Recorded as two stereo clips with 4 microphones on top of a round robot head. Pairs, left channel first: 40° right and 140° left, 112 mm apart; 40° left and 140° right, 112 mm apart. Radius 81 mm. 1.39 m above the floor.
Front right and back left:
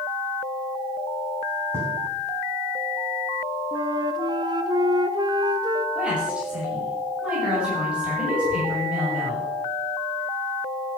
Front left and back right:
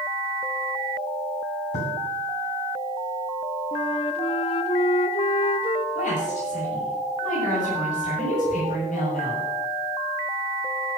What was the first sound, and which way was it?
Writing, 70° left.